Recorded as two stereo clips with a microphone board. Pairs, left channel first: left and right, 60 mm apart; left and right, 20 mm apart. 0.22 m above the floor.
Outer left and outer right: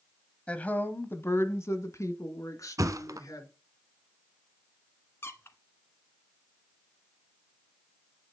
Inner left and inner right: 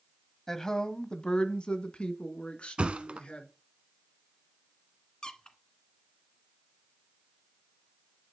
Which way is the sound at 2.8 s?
70° right (ahead or behind).